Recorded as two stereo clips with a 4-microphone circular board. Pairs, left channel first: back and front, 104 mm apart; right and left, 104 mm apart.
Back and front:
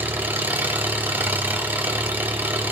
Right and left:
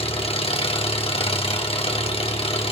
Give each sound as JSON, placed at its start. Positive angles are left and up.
{"t": 0.0, "sound": "an engine running", "azimuth_deg": -70, "distance_m": 2.5}